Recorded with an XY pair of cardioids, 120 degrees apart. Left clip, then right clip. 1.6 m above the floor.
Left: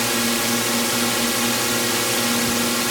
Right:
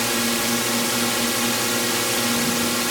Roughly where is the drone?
Ahead.